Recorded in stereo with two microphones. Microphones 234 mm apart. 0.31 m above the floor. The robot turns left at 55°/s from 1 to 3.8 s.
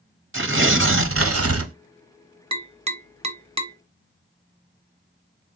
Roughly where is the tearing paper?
Ahead right.